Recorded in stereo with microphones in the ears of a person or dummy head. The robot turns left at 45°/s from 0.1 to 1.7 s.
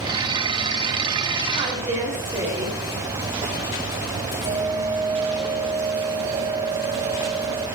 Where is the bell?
50° right (ahead or behind), 1.7 m.